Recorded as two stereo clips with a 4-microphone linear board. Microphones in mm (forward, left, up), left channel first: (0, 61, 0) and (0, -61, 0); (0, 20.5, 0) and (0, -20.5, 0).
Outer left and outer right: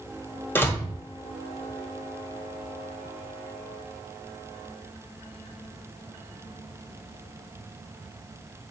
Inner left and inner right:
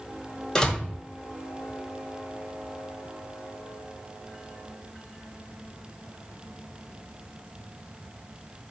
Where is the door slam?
20° left (ahead or behind), 0.7 m.